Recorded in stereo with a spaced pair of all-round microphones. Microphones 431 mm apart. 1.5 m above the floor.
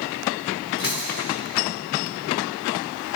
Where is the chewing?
50° right (ahead or behind), 2.5 m.